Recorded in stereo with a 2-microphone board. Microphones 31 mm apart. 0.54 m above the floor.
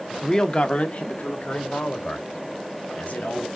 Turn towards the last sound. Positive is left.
turn(degrees=60)  # may be behind; listen again after turning